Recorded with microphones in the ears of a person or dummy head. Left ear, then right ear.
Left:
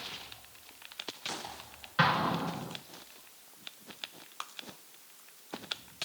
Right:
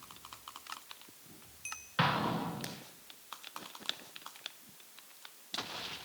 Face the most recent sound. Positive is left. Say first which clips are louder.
# left 4 dB
turn(degrees=-5)  # may be behind; listen again after turning